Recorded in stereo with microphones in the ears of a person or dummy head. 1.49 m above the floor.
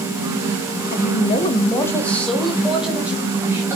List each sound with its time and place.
0.9 s a woman speaking: 50° left (ahead or behind), 0.9 m; by 3.8 s 10° right (ahead or behind), 2 m